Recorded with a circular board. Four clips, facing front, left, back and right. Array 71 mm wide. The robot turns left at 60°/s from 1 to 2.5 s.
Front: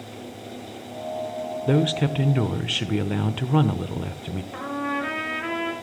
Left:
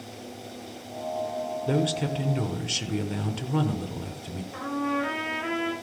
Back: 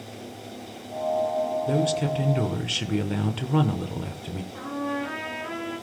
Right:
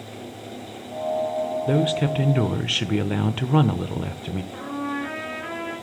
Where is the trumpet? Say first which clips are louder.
Left 3 dB, front 2 dB; 5° left, 7 m.